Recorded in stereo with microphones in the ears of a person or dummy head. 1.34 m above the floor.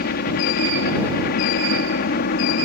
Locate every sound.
0.0 s a helicopter: 50° left (ahead or behind)